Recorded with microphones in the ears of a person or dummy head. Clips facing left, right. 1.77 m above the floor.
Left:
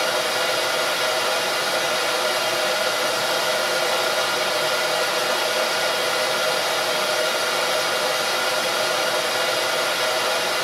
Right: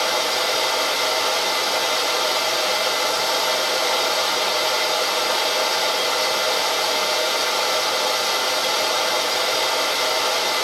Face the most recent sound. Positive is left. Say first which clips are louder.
# even
turn(degrees=20)  # may be behind; listen again after turning